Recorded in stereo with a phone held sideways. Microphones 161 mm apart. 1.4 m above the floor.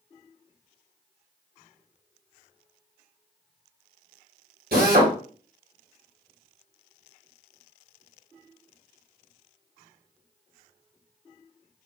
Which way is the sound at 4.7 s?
70° right (ahead or behind).